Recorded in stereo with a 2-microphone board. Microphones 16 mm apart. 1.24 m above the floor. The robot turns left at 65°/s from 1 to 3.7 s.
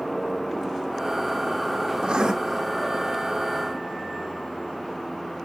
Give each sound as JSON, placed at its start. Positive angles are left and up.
{"t": 2.0, "sound": "writing", "side_deg": -60, "distance_m": 1.2}